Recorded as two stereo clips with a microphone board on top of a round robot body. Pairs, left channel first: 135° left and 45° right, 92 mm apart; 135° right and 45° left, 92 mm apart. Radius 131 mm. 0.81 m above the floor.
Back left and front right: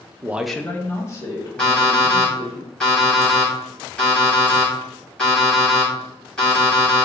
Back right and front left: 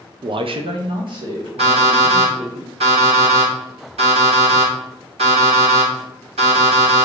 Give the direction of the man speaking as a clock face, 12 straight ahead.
12 o'clock.